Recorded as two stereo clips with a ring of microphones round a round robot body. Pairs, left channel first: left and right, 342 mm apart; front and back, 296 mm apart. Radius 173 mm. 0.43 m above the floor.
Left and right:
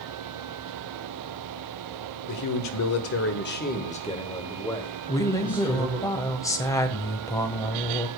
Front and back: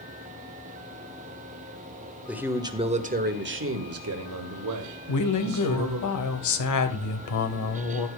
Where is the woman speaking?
10° left, 2 m.